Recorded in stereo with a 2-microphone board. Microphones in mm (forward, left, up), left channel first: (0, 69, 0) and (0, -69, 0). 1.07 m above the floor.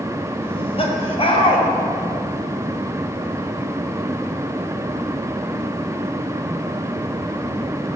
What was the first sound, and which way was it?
Laughter, 45° left (ahead or behind).